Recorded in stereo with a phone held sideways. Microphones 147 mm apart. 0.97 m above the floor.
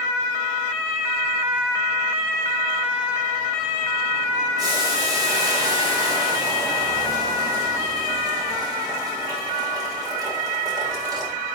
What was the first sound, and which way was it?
Boiling, 25° right (ahead or behind).